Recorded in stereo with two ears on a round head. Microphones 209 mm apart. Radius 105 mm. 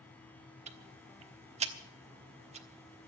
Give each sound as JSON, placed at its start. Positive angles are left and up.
{"t": 0.7, "sound": "ticking", "side_deg": -30, "distance_m": 1.3}